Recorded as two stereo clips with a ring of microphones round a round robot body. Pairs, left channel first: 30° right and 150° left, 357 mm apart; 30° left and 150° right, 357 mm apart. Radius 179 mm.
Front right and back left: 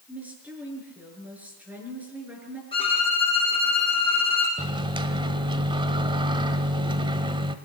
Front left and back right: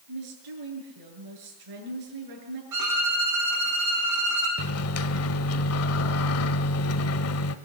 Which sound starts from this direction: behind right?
A woman speaking, at 0.1 s.